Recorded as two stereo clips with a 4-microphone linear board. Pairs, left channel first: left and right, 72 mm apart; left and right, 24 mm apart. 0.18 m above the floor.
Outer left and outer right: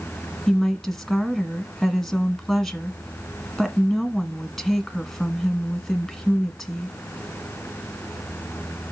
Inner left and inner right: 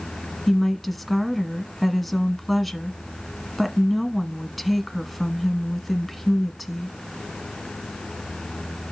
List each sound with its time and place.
0.5 s a woman speaking: centre (ahead or behind), 1.4 m